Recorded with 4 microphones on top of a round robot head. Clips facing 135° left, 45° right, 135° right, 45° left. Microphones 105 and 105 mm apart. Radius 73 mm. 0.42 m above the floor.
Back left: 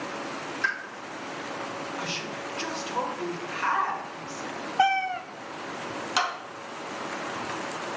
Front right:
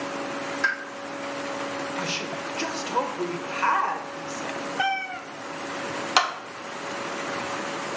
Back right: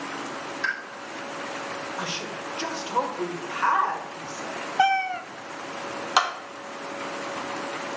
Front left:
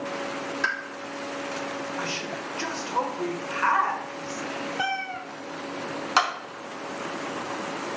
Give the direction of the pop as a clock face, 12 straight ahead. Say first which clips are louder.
Front right 2 dB, even; 12 o'clock.